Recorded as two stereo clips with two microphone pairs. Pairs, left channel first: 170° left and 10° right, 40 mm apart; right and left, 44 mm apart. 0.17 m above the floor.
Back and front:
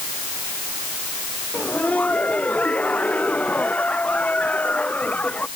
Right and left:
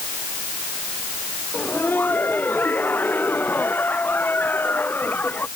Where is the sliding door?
No sliding door in this recording.